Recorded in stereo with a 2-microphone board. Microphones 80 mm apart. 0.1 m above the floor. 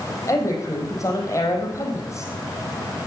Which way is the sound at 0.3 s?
40° left (ahead or behind).